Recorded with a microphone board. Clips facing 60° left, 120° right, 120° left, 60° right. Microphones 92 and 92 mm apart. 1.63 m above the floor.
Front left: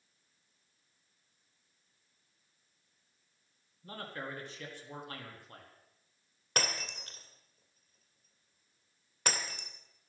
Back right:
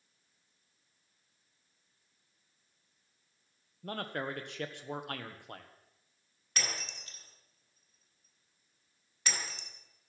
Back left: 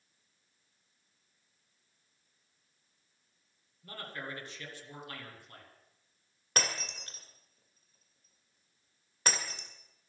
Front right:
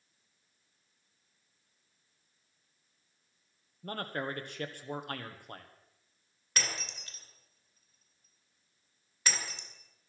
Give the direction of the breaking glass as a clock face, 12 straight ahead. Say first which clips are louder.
Front left 4 dB, back left 3 dB; 9 o'clock.